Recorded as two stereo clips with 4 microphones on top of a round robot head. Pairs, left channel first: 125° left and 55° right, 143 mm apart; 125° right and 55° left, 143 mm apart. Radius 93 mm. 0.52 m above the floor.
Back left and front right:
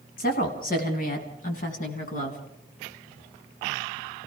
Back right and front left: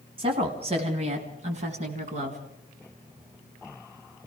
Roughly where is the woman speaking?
Left.